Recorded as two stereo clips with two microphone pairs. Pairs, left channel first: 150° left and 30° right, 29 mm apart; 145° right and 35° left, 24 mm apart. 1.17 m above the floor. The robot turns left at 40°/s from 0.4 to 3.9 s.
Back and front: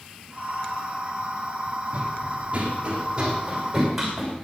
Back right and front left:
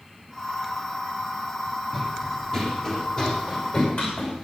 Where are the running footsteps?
60° right, 2.5 m; by 4.4 s 115° right, 6 m.